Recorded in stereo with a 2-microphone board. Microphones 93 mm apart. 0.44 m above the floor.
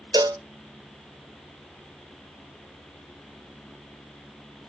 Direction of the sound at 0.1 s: 50° right (ahead or behind).